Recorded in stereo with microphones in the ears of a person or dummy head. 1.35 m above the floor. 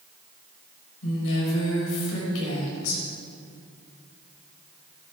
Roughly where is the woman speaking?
Left.